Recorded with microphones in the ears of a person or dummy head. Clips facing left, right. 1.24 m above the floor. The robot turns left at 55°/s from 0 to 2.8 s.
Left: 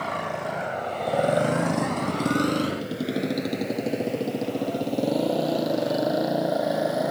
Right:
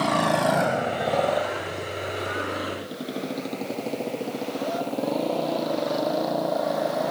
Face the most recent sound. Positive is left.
turn(degrees=10)  # may be behind; listen again after turning